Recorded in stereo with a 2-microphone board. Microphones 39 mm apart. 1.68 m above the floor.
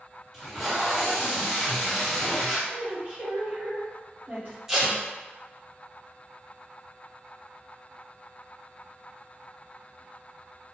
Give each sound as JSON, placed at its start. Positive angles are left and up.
{"t": 0.3, "sound": "tape being pulled", "side_deg": -10, "distance_m": 2.0}
{"t": 2.7, "sound": "a woman speaking", "side_deg": -40, "distance_m": 1.4}
{"t": 4.7, "sound": "tape being pulled", "side_deg": -10, "distance_m": 1.3}